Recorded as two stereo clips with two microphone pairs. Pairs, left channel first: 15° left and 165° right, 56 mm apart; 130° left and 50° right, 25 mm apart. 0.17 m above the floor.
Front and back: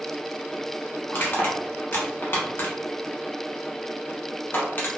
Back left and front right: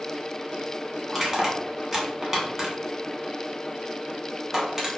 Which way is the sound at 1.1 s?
25° left.